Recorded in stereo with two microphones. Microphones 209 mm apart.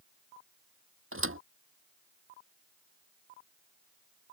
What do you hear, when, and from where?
1.1 s a thud: 85° right